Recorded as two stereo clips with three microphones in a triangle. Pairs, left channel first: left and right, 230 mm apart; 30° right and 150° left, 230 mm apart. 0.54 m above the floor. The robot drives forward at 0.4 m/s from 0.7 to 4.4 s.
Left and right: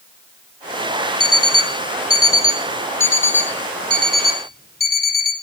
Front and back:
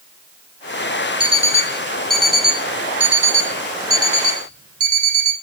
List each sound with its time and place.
1.2 s an alarm clock: 85° left, 1.2 m; by 5.3 s 135° left, 1.6 m